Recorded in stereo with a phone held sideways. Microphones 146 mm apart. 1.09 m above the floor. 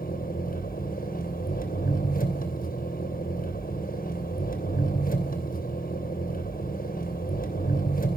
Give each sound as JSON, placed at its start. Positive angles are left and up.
{"t": 0.0, "sound": "an engine running", "side_deg": 80, "distance_m": 2.5}